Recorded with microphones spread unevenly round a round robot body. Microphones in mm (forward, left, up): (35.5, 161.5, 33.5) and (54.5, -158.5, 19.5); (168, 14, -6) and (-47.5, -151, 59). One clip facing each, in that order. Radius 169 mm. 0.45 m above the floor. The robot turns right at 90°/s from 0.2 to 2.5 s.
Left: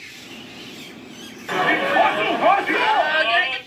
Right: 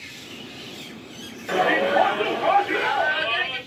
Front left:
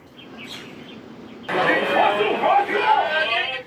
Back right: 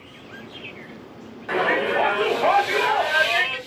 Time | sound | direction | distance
1.5 | a shout | 15° left | 1.9 m